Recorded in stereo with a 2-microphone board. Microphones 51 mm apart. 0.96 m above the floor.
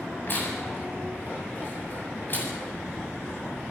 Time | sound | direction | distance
0.3 | tearing paper | 45° left (ahead or behind) | 8 m